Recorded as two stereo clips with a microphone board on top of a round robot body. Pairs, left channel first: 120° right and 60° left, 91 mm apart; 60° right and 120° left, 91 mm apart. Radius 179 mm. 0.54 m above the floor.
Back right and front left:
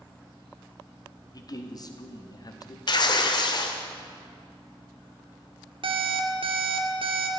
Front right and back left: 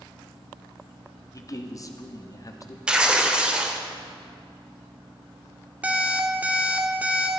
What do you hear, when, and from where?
1.3 s a man speaking: 95° right, 1.5 m
2.9 s tearing paper: 160° right, 0.9 m
5.8 s an alarm clock: 50° left, 1.3 m